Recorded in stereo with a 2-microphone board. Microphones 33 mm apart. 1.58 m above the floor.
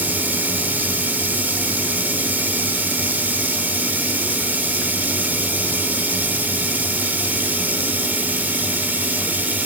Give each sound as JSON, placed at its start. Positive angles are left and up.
{"t": 0.0, "sound": "running water", "side_deg": -60, "distance_m": 3.0}